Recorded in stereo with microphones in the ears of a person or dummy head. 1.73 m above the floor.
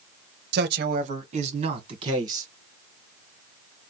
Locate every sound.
0.5 s a man speaking: 70° right (ahead or behind), 0.7 m; by 2.5 s 30° right (ahead or behind), 1.9 m